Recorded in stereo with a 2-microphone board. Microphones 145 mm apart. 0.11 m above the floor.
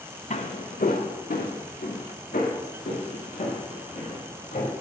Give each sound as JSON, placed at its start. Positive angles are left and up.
{"t": 0.3, "sound": "footsteps", "side_deg": 55, "distance_m": 1.5}